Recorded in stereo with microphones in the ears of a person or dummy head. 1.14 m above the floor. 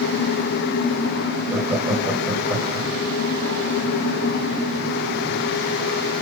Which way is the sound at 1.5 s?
Centre (ahead or behind).